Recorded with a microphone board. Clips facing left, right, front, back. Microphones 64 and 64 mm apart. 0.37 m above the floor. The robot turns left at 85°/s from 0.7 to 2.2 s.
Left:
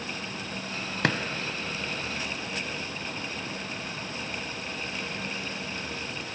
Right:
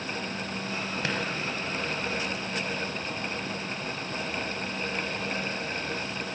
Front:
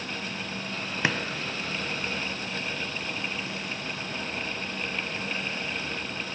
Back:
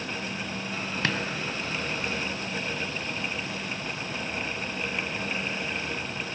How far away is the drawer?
About 0.5 m.